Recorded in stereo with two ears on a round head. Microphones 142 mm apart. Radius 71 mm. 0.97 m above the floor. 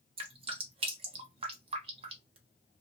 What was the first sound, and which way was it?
Dripping, 35° right (ahead or behind).